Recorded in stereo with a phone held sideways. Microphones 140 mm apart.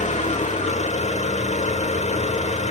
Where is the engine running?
50° left (ahead or behind), 1.4 m.